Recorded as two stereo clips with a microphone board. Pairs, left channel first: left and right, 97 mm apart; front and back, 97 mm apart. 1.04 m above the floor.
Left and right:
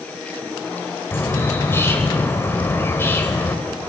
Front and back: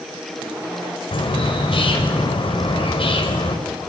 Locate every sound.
1.1 s a bird: 25° left, 4 m